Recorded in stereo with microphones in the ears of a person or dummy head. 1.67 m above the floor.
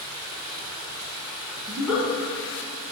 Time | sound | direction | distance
0.0 | running water | 70° right (ahead or behind) | 1.9 m
1.7 | a giggle | 10° right (ahead or behind) | 3 m